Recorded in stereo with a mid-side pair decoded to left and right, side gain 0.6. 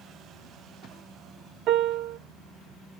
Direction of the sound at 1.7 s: 55° right.